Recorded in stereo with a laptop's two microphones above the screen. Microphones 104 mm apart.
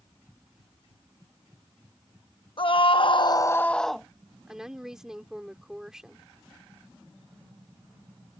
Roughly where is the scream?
Left.